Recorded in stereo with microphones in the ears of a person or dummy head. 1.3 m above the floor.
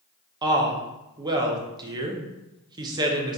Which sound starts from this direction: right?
A woman speaking, at 0.4 s.